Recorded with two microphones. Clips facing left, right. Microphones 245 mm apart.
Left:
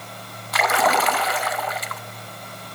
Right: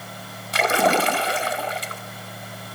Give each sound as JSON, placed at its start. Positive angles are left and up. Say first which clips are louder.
{"t": 0.5, "sound": "a splash", "louder": "right 2 dB", "side_deg": -30, "distance_m": 0.5}